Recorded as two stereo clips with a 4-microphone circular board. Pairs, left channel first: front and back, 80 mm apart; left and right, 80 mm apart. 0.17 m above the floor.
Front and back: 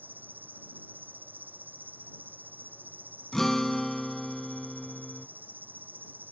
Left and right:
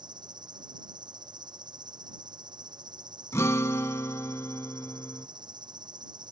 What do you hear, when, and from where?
0.0 s an insect: 115° right
3.3 s a guitar: 85° left